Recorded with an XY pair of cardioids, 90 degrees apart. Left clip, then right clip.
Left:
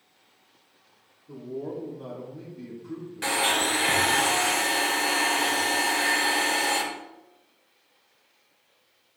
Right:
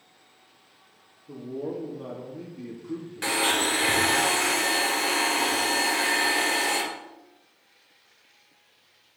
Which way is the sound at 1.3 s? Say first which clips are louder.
Right 1 dB; 35° right.